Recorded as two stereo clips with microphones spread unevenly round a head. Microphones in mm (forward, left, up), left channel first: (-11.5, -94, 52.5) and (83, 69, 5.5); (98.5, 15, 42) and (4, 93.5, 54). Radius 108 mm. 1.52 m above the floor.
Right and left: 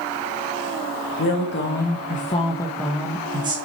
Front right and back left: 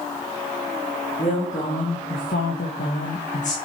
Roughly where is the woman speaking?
Right.